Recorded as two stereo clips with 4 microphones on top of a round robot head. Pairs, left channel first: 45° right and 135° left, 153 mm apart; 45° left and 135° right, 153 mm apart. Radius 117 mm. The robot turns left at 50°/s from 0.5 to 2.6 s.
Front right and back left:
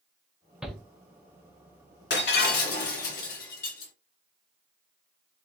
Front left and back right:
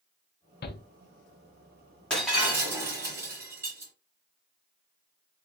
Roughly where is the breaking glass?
Ahead right.